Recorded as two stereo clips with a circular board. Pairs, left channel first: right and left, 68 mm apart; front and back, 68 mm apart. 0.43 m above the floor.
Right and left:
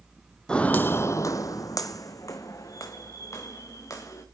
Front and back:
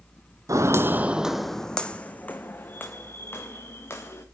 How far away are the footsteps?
About 0.7 m.